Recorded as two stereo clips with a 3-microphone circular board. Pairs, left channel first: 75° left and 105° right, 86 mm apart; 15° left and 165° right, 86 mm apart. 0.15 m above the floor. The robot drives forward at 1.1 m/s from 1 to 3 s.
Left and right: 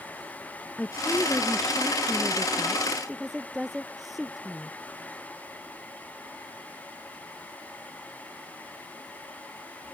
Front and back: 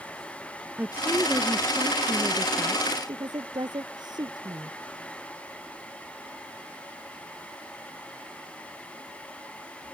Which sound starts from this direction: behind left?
A woman speaking, at 0.8 s.